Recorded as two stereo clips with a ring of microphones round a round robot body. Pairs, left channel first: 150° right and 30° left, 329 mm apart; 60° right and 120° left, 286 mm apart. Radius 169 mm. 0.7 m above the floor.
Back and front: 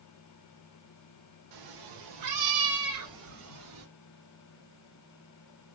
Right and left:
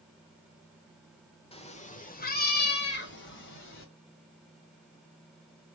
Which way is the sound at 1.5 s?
10° left.